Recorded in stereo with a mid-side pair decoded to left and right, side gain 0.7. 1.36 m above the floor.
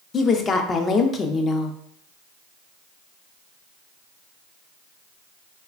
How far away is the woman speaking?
About 0.5 m.